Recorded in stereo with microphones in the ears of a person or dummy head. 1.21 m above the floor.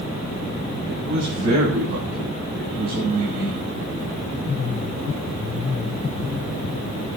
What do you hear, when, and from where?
0.9 s a man speaking: 50° right (ahead or behind), 7 m; by 3.6 s 45° right (ahead or behind), 8.5 m